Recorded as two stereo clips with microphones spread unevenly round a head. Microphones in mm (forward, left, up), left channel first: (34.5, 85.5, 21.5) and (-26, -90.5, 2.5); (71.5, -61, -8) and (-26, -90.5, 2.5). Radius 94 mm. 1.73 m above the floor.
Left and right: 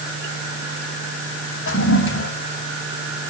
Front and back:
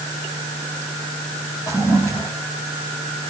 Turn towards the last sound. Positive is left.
turn(degrees=95)